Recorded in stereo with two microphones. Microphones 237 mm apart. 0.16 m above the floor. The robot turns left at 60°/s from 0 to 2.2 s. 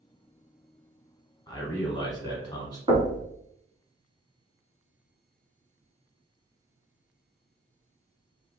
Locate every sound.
1.5 s a man speaking: 20° left (ahead or behind), 1.2 m
2.9 s knocking: 20° right (ahead or behind), 0.9 m